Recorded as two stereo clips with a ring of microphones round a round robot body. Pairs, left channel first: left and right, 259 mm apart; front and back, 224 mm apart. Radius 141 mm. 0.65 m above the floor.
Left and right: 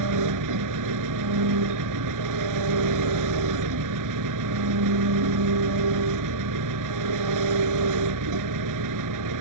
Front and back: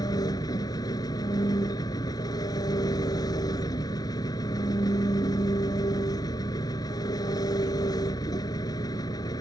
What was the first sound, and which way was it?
An engine running, 75° right.